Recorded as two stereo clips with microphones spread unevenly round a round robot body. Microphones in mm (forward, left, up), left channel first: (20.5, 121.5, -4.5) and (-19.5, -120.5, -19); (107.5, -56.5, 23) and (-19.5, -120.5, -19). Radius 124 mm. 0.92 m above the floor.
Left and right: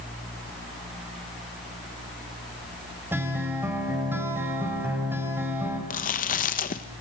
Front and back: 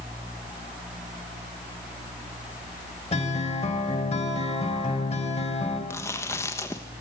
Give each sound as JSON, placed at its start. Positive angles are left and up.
{"t": 3.1, "sound": "a guitar", "azimuth_deg": -20, "distance_m": 3.5}
{"t": 5.9, "sound": "chewing", "azimuth_deg": 115, "distance_m": 0.9}